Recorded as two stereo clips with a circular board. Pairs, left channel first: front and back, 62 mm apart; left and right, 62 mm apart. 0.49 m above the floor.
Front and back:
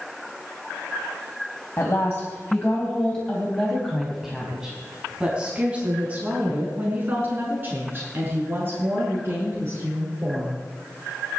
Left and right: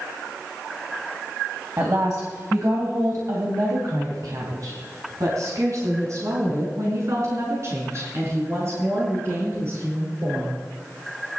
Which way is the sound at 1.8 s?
50° right.